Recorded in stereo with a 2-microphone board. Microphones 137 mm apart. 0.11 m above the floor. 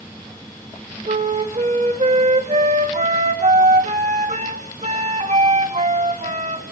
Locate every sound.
1.1 s a flute: 60° right (ahead or behind), 2.5 m